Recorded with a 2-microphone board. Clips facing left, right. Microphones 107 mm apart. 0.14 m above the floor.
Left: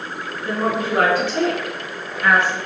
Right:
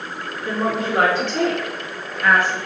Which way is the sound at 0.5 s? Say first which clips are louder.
Left 1 dB; 15° left (ahead or behind).